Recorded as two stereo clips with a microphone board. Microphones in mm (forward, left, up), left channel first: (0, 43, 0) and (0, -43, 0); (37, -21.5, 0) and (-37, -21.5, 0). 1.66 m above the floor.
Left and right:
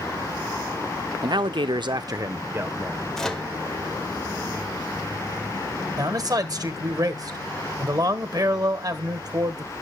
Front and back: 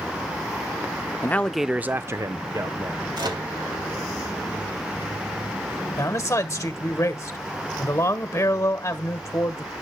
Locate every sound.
1.2 s a man speaking: 60° right, 0.6 m; by 3.0 s 155° right, 1.4 m
3.1 s a microwave: 175° left, 1.6 m
6.0 s a man speaking: 50° right, 1.3 m